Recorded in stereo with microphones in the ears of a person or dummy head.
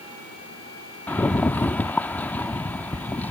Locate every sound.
1.1 s a rattle: 10° left (ahead or behind)